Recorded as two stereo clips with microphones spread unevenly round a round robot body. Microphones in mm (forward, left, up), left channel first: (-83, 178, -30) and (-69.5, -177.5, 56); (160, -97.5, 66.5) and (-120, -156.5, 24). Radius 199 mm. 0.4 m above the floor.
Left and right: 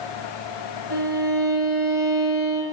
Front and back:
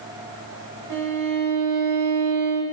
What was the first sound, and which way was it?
A violin, 155° right.